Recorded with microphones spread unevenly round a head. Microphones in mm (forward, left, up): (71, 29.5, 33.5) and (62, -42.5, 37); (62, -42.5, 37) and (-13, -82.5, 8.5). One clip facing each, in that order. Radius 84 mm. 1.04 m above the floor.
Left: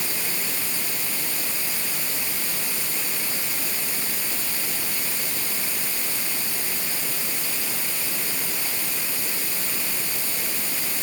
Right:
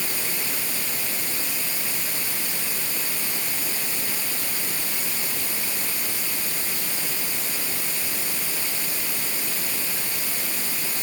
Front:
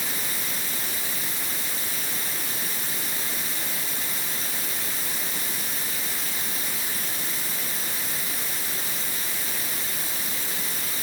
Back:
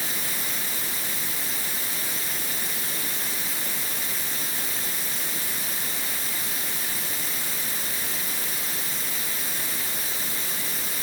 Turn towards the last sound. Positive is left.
No sound to turn to.